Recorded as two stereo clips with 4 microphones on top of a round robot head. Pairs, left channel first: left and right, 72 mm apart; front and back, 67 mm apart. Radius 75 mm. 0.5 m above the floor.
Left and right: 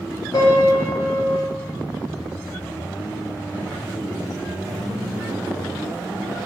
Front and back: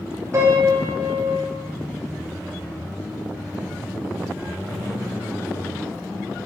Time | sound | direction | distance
0.3 | a piano | 135° left | 0.6 m